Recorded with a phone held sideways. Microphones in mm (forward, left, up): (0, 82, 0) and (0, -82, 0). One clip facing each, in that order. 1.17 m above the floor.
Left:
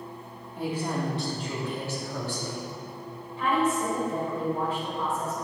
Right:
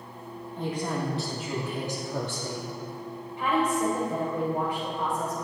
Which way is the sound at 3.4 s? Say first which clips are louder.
Even; 15° right (ahead or behind).